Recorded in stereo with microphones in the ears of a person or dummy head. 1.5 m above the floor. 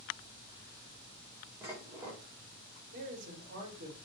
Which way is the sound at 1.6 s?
15° right (ahead or behind).